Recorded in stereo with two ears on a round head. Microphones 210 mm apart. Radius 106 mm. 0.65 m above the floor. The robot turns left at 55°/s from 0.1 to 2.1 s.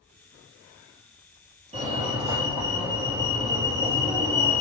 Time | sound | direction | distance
1.7 | a fire alarm | 25° right (ahead or behind) | 1.8 m